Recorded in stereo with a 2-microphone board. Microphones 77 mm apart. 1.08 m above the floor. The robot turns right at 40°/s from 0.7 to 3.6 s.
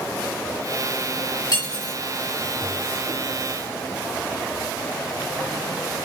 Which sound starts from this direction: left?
Cutlery clinking, at 1.5 s.